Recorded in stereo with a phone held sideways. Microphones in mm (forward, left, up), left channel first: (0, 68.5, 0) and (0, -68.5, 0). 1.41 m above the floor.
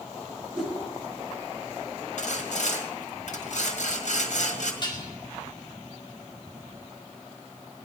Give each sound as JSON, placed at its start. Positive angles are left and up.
{"t": 0.5, "sound": "a whoosh", "side_deg": -5, "distance_m": 8.5}
{"t": 2.2, "sound": "sawing", "side_deg": 65, "distance_m": 1.9}
{"t": 4.8, "sound": "dishes clattering", "side_deg": 35, "distance_m": 2.5}